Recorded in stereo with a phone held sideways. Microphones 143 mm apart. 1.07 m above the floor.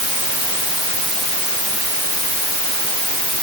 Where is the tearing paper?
I don't hear tearing paper.